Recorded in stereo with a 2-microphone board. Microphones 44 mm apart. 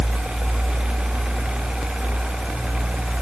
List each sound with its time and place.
Only background noise.